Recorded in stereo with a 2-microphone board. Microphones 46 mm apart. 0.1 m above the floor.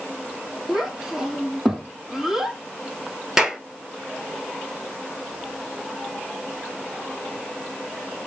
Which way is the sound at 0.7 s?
5° right (ahead or behind).